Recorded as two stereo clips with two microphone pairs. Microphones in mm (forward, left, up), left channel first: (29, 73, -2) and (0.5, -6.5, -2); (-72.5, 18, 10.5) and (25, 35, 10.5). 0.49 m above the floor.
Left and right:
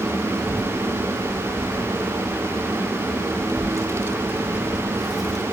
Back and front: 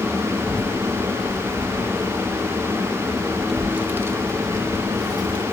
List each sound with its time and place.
0.3 s a child speaking: 135° right, 4 m; by 5.4 s 15° right, 2.5 m